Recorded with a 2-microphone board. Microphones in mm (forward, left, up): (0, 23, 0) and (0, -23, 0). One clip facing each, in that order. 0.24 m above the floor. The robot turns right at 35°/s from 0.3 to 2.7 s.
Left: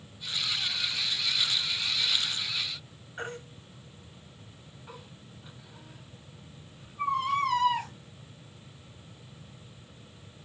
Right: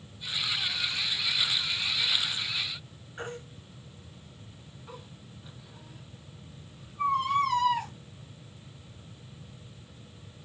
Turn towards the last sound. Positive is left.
turn(degrees=10)  # may be behind; listen again after turning